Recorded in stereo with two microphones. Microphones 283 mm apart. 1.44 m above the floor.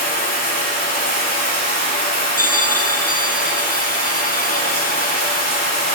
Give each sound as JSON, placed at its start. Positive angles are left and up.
{"t": 0.0, "sound": "running water", "side_deg": 30, "distance_m": 6.0}
{"t": 2.4, "sound": "a bell", "side_deg": 30, "distance_m": 1.7}